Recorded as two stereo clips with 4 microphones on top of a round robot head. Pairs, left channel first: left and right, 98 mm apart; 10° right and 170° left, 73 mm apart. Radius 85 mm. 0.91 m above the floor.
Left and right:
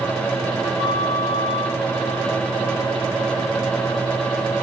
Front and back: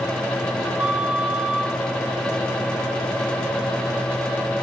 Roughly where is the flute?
Left.